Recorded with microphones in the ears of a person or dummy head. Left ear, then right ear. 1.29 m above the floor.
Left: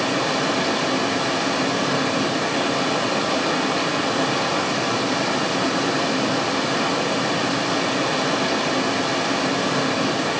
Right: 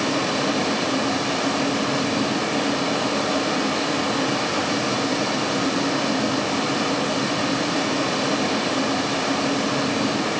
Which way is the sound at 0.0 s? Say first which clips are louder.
Left 1 dB; 10° left (ahead or behind).